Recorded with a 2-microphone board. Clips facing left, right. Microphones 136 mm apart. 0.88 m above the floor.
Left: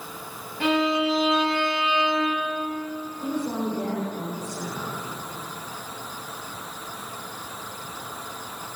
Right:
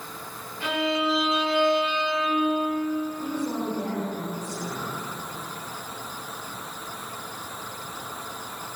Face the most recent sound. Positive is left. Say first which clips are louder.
# left 1 dB
turn(degrees=15)  # may be behind; listen again after turning